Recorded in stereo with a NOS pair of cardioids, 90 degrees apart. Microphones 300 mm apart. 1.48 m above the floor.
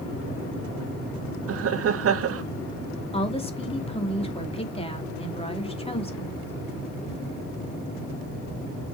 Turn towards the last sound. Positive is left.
turn(degrees=20)